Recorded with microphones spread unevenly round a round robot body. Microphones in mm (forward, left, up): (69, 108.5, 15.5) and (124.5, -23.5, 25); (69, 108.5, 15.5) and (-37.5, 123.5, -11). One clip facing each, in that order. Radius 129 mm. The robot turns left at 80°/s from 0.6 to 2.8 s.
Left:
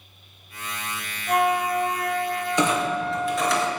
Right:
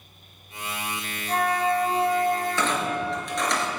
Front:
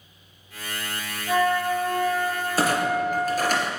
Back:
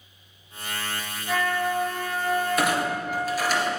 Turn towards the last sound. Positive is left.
turn(degrees=25)